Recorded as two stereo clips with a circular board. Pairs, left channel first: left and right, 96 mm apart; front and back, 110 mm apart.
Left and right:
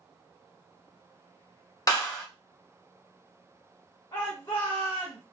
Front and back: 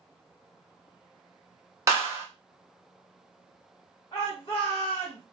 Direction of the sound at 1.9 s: 125° left.